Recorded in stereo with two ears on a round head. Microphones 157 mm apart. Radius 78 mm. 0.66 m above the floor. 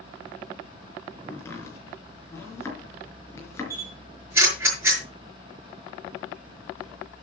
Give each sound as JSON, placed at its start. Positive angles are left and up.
{"t": 1.3, "sound": "chopping", "side_deg": 15, "distance_m": 5.0}
{"t": 3.7, "sound": "a camera shutter", "side_deg": -15, "distance_m": 6.5}